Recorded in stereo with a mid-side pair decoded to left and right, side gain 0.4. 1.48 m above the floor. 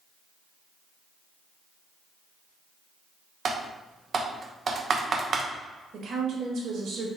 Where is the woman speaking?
65° right, 1.5 m.